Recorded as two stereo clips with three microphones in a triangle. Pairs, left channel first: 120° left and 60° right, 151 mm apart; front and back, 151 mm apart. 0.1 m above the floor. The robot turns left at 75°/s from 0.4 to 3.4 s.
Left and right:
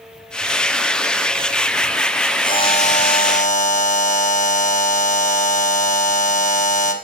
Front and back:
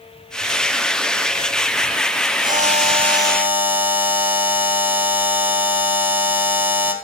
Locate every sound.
2.4 s a buzzer: 175° left, 1.6 m; by 6.9 s 105° left, 1.6 m